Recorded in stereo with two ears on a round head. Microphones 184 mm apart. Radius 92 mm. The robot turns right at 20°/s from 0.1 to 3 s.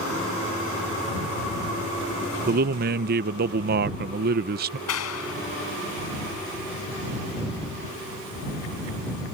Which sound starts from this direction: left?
A clap, at 4.9 s.